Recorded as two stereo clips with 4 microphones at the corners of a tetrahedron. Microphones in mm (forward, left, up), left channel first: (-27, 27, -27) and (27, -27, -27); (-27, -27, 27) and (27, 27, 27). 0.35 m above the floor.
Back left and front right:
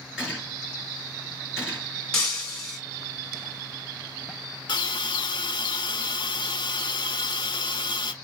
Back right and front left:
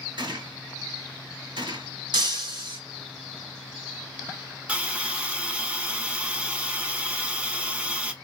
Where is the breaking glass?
55° left, 1.9 m.